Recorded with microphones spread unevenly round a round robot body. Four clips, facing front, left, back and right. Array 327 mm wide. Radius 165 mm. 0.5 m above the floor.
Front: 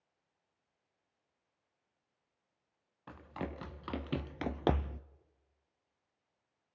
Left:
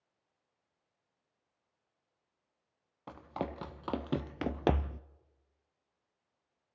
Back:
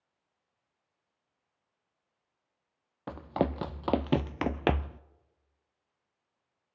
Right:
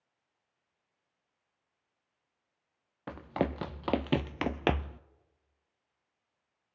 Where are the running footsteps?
150° right, 1.3 m; by 5.0 s 75° left, 0.5 m.